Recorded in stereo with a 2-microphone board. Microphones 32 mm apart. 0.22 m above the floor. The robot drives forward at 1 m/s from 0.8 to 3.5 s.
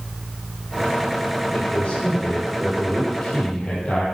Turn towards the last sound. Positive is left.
turn(degrees=50)  # may be behind; listen again after turning